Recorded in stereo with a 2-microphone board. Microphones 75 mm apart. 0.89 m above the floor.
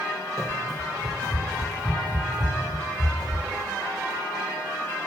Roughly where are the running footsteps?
Right.